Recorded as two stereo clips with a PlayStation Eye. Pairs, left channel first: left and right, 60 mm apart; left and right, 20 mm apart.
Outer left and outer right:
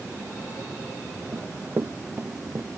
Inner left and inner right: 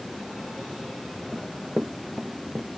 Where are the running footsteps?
50° right (ahead or behind); by 2.7 s 35° right (ahead or behind).